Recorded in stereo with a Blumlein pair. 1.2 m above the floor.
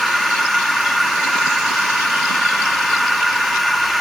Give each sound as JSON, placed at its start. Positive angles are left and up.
{"t": 0.0, "sound": "a machine running", "azimuth_deg": 5, "distance_m": 0.7}